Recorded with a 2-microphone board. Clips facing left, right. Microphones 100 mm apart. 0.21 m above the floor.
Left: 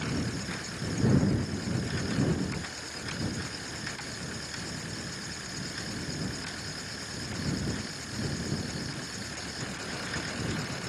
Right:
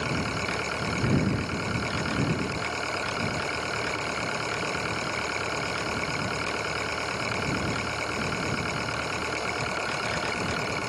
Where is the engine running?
75° right (ahead or behind).